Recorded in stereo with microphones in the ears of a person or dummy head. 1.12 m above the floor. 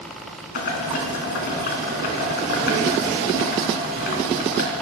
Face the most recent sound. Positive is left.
turn(degrees=50)  # may be behind; listen again after turning